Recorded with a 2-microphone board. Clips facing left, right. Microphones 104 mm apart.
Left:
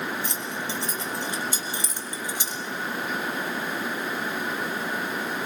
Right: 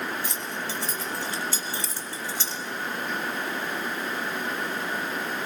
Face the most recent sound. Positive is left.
turn(degrees=15)  # may be behind; listen again after turning